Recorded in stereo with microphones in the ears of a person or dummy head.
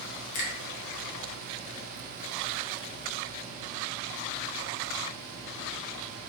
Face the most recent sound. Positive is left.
turn(degrees=40)  # may be behind; listen again after turning